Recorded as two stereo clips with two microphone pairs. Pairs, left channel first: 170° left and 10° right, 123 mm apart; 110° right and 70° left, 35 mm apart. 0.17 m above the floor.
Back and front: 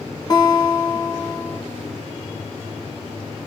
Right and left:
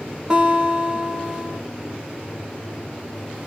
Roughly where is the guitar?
Behind left.